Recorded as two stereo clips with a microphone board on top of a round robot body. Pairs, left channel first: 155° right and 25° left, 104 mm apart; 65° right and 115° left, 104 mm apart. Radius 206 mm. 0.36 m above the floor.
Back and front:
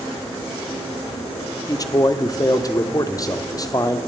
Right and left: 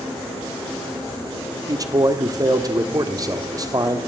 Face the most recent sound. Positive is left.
turn(degrees=155)